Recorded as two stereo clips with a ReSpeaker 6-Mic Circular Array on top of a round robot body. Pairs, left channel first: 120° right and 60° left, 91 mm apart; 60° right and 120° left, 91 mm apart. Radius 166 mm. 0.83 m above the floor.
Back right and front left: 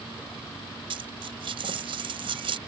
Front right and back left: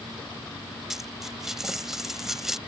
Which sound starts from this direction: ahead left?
A dropped coin, at 0.9 s.